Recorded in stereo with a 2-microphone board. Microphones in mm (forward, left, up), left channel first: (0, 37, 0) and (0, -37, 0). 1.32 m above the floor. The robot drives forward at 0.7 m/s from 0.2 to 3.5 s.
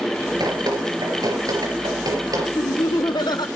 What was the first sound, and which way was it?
Dripping, 65° right (ahead or behind).